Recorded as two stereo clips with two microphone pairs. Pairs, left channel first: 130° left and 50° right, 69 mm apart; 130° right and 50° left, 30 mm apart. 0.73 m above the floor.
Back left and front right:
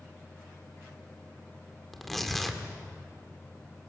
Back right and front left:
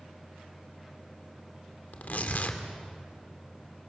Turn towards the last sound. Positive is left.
turn(degrees=-140)